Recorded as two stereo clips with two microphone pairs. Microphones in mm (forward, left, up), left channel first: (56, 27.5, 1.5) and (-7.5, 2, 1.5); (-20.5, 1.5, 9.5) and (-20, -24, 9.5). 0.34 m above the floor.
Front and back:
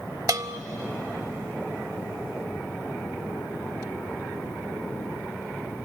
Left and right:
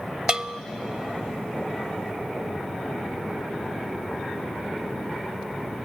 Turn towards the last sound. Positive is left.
turn(degrees=-140)